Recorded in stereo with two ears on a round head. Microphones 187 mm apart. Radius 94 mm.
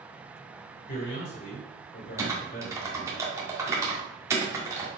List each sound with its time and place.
0.9 s a man speaking: 55° left (ahead or behind), 3 m
2.2 s typing on a keyboard: 15° right (ahead or behind), 1.9 m